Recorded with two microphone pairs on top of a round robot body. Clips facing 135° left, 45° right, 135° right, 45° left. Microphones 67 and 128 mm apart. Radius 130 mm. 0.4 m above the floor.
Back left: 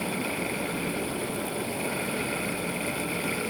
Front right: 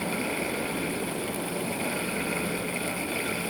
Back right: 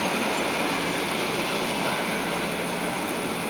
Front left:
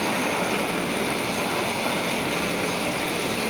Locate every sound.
Only background noise.